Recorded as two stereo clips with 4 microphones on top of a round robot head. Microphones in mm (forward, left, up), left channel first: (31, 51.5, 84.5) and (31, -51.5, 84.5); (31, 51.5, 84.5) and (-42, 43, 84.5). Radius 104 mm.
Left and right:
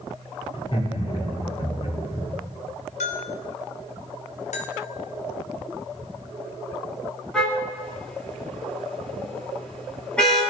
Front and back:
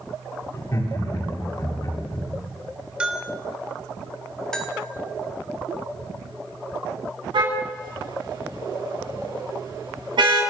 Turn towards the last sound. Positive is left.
turn(degrees=170)